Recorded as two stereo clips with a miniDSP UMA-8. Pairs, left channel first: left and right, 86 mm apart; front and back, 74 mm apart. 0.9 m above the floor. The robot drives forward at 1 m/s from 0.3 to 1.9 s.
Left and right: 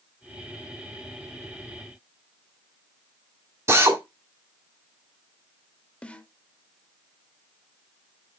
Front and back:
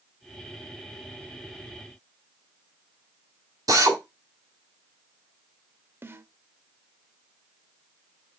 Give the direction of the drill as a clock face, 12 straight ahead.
5 o'clock.